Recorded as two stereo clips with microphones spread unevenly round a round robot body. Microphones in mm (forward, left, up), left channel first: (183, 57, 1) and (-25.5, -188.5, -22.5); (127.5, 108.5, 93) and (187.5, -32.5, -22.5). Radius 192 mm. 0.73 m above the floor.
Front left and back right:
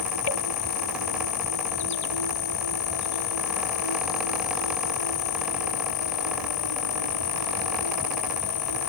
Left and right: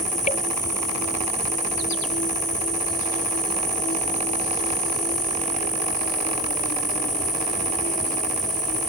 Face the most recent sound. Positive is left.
turn(degrees=80)